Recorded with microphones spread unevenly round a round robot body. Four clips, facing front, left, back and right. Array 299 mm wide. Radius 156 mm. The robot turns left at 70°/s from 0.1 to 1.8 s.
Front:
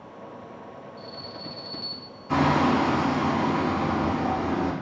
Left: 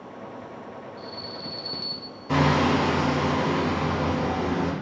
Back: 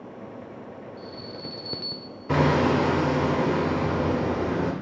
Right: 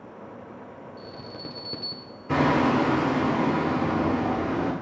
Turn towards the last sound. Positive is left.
turn(degrees=-175)